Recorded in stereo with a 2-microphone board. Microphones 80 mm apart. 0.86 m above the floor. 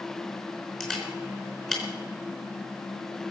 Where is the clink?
I don't hear a clink.